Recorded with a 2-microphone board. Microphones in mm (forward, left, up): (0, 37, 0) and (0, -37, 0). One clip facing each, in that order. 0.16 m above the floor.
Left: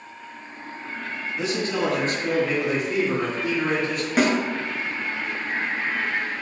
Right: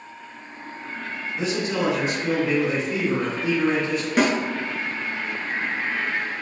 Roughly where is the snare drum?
Centre.